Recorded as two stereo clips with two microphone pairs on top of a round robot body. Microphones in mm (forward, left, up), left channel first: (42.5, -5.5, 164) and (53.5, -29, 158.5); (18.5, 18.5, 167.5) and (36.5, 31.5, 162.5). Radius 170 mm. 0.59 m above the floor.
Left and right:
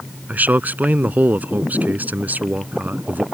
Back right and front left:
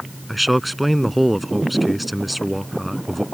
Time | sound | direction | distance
0.3 | a man speaking | 55° right | ?